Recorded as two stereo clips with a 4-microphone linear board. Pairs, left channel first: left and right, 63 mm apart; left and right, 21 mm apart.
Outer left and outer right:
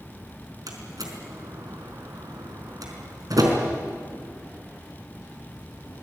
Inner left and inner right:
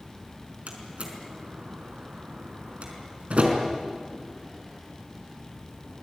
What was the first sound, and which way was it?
A door slam, 75° right (ahead or behind).